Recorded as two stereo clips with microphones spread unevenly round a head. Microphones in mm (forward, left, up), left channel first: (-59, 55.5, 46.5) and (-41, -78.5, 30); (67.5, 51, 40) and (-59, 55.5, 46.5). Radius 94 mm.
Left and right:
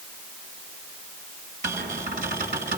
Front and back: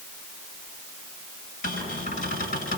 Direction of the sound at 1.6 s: 40° right.